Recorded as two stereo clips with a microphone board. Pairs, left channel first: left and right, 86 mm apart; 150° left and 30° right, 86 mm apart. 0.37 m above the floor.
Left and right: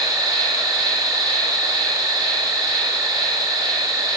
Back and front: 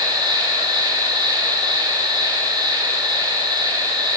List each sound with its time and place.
0.0 s an insect: 55° right, 7.5 m